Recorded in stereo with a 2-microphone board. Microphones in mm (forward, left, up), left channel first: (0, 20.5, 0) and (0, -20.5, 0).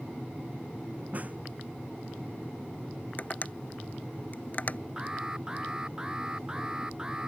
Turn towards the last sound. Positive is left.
turn(degrees=-15)  # may be behind; listen again after turning